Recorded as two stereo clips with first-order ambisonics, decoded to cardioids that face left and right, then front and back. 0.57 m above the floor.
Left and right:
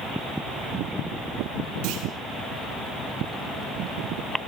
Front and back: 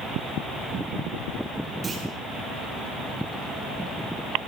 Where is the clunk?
110° right, 6.5 m.